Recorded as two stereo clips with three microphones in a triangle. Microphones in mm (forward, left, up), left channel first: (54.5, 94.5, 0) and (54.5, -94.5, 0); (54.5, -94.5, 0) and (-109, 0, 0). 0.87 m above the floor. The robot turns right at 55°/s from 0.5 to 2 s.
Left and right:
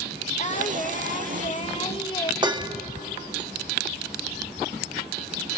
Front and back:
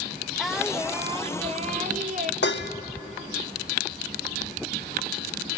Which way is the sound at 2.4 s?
25° right.